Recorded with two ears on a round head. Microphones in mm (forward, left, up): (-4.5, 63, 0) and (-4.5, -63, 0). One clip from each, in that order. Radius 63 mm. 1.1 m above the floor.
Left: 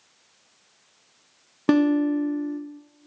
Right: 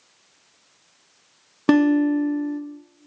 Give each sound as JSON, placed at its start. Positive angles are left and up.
{"t": 1.7, "sound": "a guitar", "side_deg": -10, "distance_m": 0.7}